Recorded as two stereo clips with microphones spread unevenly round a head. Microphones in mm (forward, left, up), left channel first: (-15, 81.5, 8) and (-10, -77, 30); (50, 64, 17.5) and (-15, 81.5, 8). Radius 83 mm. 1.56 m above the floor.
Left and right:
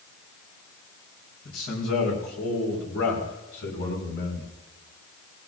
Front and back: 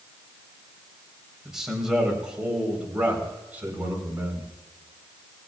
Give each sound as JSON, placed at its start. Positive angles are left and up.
{"t": 1.4, "sound": "a man speaking", "azimuth_deg": 80, "distance_m": 6.5}